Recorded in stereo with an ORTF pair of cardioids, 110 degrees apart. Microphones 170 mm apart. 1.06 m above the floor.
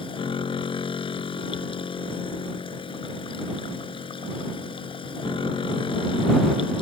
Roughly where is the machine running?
Ahead left.